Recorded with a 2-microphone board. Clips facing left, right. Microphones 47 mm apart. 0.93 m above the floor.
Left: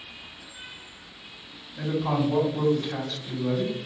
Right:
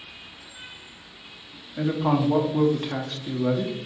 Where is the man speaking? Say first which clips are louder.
Right 3 dB; 50° right (ahead or behind), 1.0 m.